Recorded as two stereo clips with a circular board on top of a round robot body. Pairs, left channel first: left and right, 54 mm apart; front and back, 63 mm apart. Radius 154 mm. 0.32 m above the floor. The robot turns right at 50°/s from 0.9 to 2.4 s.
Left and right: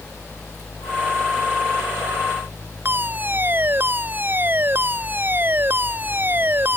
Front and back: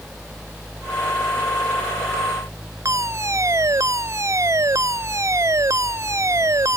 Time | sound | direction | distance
2.9 | a fire alarm | 140° right | ?